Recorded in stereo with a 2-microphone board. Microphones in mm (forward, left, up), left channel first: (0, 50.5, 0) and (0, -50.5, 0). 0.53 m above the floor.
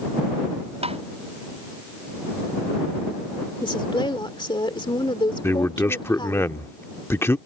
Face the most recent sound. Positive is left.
turn(degrees=25)  # may be behind; listen again after turning